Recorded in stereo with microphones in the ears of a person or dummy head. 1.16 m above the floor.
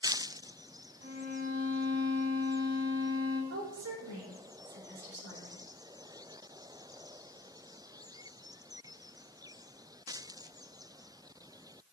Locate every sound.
1.0 s a violin: 50° right (ahead or behind), 3 m
3.5 s a woman speaking: 60° right (ahead or behind), 3 m